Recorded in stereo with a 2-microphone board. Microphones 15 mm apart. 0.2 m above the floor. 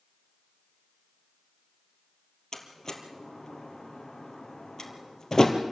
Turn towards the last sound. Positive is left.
turn(degrees=40)  # may be behind; listen again after turning